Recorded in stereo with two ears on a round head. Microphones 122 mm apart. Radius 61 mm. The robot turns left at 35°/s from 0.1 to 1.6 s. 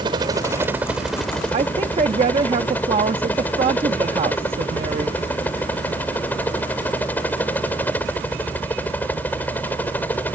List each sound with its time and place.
0.0 s a helicopter: 140° right; by 10.4 s 165° left
1.5 s a woman speaking: 45° right (ahead or behind); by 5.2 s 40° right (ahead or behind)